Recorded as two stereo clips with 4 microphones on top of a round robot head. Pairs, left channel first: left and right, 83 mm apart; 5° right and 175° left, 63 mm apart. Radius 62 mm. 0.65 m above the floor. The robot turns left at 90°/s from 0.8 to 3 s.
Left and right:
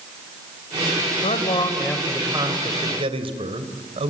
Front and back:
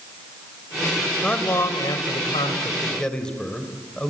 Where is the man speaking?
75° left, 3 m; by 4.1 s 85° right, 3 m.